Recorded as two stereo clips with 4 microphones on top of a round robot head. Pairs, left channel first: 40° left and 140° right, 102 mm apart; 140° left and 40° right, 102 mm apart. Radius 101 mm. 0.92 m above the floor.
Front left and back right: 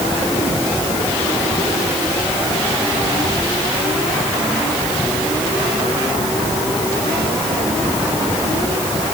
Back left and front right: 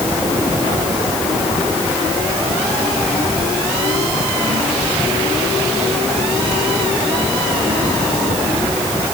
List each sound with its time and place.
Only background noise.